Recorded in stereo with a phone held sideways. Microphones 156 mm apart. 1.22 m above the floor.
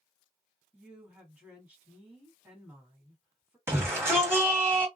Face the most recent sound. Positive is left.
turn(degrees=-15)  # may be behind; listen again after turning